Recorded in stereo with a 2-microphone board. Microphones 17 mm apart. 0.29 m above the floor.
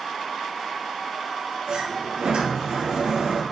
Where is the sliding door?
85° right, 1.0 m.